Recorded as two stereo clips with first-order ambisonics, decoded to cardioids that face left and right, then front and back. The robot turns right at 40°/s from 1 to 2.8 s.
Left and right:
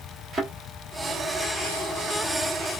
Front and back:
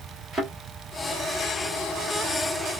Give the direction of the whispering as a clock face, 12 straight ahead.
No whispering in this recording.